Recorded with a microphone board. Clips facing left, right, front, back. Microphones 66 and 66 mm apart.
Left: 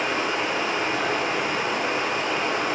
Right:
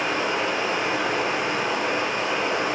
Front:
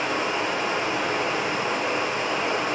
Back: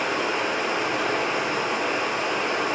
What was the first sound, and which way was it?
Running water, 160° right.